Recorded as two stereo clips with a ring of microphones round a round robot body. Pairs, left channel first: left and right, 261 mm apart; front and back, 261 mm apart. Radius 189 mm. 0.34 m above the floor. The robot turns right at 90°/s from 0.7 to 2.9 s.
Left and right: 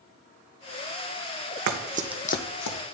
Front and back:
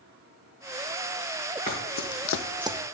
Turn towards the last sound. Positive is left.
turn(degrees=135)